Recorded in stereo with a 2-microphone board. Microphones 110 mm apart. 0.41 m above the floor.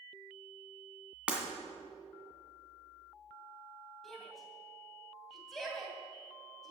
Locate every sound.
1.3 s breaking glass: 10° right (ahead or behind), 2 m
4.0 s a shout: centre (ahead or behind), 3 m